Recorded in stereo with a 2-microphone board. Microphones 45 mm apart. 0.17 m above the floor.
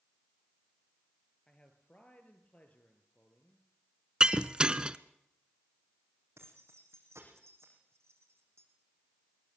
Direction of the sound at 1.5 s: 25° left (ahead or behind).